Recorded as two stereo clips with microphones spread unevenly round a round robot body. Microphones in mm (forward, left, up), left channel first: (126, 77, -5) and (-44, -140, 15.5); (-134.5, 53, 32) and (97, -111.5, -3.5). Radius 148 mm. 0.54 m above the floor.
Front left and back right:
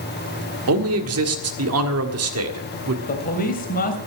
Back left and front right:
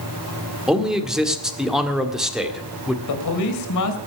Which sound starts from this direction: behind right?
A man speaking, at 0.7 s.